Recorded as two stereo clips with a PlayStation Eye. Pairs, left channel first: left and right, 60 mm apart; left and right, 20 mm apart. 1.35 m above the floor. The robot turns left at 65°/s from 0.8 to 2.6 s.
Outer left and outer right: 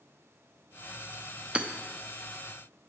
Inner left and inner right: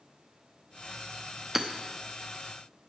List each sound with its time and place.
1.6 s hammering: 15° right (ahead or behind), 0.8 m; by 1.7 s 20° right (ahead or behind), 0.8 m